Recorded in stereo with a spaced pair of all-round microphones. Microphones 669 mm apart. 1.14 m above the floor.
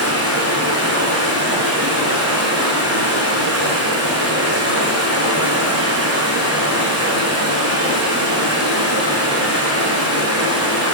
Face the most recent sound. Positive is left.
turn(degrees=-20)  # may be behind; listen again after turning